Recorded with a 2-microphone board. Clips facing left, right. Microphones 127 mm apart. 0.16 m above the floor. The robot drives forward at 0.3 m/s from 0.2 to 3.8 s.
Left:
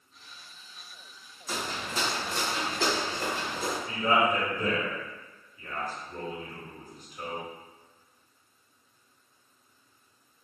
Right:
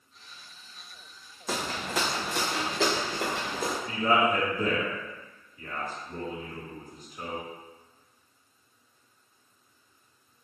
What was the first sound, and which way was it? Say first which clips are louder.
Footsteps: right 3 dB; 65° right (ahead or behind).